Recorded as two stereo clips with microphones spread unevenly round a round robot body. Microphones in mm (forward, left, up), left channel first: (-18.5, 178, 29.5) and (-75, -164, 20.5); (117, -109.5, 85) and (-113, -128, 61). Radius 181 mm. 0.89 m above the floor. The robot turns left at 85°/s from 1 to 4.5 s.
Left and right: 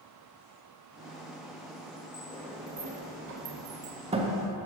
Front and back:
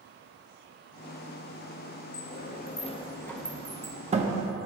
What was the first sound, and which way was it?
A sliding door, 15° left.